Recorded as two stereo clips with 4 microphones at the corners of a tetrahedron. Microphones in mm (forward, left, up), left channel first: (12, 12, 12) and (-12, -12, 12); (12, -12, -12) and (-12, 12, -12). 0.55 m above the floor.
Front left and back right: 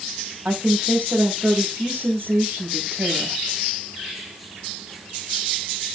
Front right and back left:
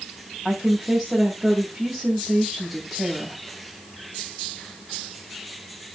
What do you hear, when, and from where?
0.5 s a woman speaking: 130° right, 3 m